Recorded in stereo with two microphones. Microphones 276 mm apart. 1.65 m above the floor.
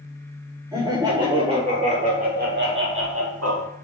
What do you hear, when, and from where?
0.7 s laughter: 15° right (ahead or behind), 4 m; by 3.7 s 75° right (ahead or behind), 1.8 m